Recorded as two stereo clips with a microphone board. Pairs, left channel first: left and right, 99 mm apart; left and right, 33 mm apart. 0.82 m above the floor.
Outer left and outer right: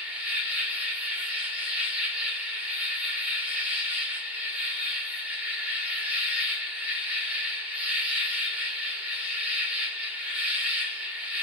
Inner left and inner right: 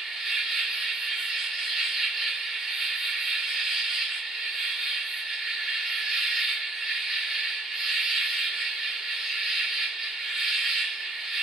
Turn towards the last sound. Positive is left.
turn(degrees=-15)  # may be behind; listen again after turning